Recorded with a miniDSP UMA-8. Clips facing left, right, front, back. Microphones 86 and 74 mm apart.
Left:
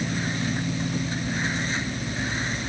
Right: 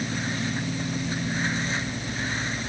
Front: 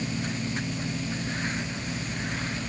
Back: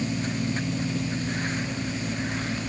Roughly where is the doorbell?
I don't hear a doorbell.